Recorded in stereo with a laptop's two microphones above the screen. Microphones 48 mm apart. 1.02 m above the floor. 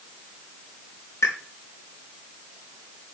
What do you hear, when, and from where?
1.2 s a pop: 80° left, 4 m